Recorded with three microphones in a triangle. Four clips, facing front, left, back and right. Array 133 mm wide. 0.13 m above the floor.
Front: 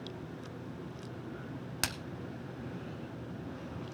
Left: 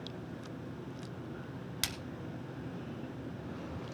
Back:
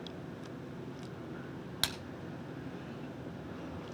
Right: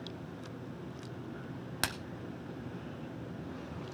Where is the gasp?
I don't hear a gasp.